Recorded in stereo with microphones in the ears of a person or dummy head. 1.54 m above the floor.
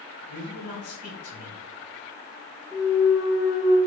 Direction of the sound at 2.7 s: 25° left (ahead or behind).